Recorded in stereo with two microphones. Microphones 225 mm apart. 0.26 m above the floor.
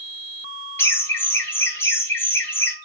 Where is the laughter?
10° left (ahead or behind), 1.3 m.